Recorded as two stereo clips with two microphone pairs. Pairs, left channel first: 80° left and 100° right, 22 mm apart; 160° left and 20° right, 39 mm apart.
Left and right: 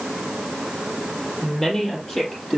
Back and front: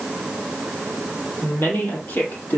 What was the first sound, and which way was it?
A woman speaking, 155° left.